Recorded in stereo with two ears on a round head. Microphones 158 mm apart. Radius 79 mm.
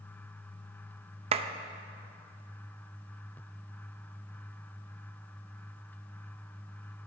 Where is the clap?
35° right (ahead or behind), 0.5 m.